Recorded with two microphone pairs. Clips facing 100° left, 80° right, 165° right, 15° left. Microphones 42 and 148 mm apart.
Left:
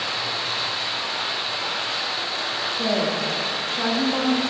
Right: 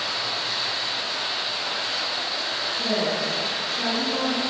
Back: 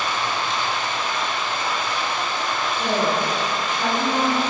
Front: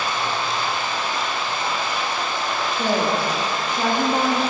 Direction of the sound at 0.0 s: 70° left.